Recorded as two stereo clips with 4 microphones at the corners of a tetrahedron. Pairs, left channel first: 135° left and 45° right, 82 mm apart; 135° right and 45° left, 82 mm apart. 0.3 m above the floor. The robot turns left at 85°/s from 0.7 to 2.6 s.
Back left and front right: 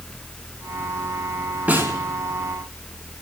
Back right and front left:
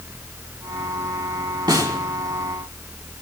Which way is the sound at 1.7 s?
25° left.